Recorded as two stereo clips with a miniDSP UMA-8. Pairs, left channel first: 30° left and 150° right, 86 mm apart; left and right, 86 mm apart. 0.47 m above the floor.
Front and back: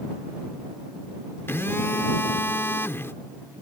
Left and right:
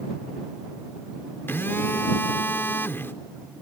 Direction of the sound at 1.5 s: 55° left.